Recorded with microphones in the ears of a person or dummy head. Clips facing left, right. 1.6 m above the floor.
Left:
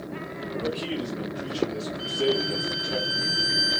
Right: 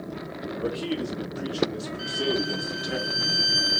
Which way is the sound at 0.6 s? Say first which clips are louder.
Right 2 dB; 10° right (ahead or behind).